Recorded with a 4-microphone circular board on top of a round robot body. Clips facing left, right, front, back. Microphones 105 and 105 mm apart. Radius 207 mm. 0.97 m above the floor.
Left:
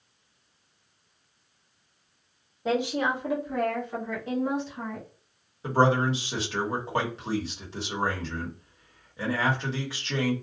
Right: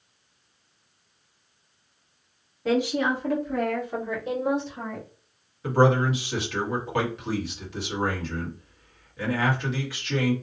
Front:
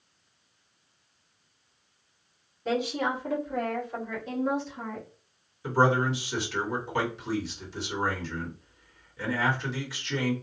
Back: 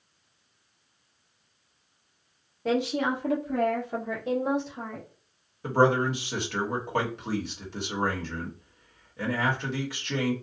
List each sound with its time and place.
2.6 s a woman speaking: 155° left, 1.5 m; by 5.1 s 145° right, 1.4 m
5.6 s a man speaking: 150° left, 1.5 m